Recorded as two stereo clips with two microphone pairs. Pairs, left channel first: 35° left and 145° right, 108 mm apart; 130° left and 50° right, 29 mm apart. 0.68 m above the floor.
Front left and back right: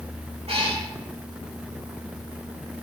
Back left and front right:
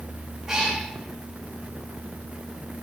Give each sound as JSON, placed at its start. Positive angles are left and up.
{"t": 0.5, "sound": "a cat meowing", "azimuth_deg": -125, "distance_m": 9.5}